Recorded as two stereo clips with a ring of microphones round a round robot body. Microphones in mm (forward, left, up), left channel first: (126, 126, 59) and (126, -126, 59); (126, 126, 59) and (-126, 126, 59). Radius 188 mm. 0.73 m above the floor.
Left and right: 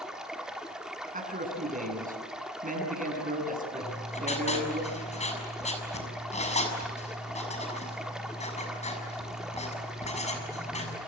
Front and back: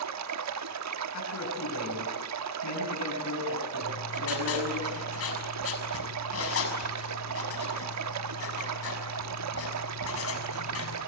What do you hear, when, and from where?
0.0 s running water: straight behind, 1.0 m
1.1 s a man speaking: 35° right, 8.5 m
3.8 s writing: 25° left, 6.5 m